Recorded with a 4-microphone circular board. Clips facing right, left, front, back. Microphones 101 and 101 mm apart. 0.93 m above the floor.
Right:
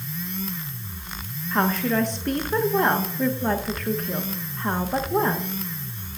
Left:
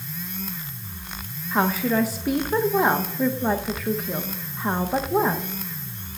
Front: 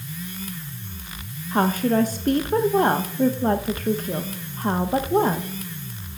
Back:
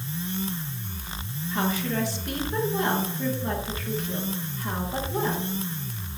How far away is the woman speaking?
About 0.9 m.